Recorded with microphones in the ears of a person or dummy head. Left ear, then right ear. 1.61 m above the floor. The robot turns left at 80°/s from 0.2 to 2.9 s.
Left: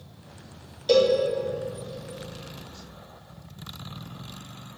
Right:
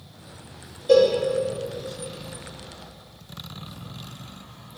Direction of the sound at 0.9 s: 50° left (ahead or behind).